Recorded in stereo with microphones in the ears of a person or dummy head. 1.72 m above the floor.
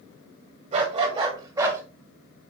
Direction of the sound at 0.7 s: 40° right (ahead or behind).